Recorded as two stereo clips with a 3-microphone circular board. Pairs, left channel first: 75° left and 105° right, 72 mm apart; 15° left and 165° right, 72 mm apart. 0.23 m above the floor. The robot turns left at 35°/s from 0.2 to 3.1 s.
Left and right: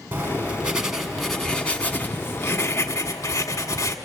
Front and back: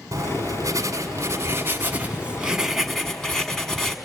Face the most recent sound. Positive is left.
turn(degrees=100)